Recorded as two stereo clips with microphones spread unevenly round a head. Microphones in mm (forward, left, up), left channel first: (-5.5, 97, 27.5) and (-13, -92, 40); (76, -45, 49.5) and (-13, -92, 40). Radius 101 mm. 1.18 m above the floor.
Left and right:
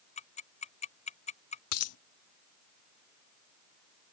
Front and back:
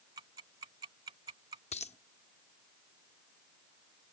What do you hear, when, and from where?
0.2 s ticking: 145° left
1.7 s a dropped coin: 80° left